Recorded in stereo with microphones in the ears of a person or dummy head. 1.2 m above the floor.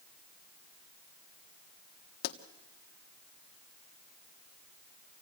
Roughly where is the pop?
Left.